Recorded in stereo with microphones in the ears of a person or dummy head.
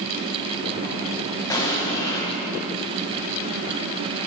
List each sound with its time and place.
1.5 s an explosion: 15° left (ahead or behind), 1.2 m